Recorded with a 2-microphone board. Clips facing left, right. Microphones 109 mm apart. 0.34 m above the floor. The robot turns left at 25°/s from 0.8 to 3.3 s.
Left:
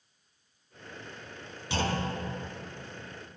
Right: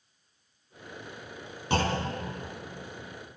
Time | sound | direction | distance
1.7 | a clunk | 50° right (ahead or behind) | 2.5 m